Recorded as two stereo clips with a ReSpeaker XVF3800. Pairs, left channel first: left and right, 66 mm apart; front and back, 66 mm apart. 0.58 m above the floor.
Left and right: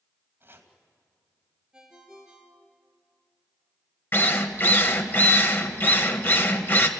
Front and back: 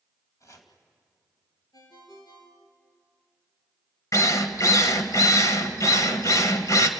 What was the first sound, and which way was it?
Chopping, 35° right.